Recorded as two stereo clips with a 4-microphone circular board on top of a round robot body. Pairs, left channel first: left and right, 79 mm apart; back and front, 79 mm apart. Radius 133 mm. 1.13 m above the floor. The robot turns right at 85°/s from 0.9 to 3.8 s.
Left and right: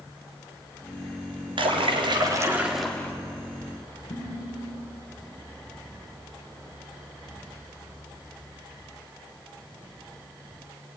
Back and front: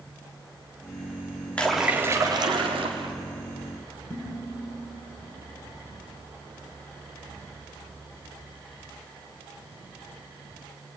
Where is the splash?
105° right, 3 m; by 3.1 s 30° left, 3 m.